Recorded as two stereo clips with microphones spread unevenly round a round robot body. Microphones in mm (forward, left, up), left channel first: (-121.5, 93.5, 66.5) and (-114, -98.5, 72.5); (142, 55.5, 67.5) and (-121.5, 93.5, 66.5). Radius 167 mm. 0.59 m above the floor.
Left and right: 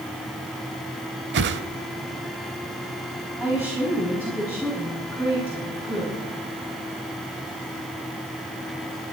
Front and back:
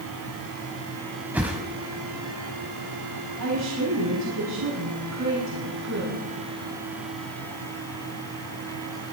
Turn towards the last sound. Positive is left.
turn(degrees=-170)